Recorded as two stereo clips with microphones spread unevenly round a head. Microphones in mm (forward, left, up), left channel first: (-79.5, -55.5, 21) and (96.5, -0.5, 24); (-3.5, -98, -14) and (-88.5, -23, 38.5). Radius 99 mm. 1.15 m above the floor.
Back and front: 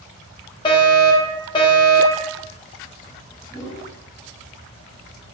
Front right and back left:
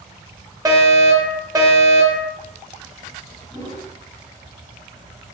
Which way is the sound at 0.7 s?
145° right.